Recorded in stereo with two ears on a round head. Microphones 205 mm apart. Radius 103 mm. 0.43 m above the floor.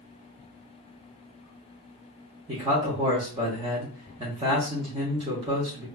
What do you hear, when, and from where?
2.5 s a man speaking: 25° right (ahead or behind), 1.0 m